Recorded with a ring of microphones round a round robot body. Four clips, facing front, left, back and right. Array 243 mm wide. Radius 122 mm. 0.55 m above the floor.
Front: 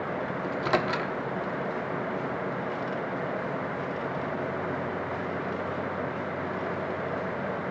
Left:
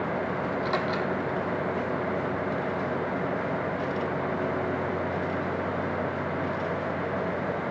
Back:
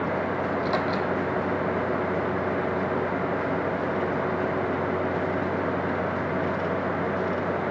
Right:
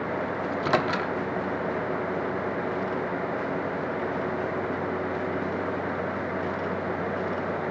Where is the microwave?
60° right, 1.0 m.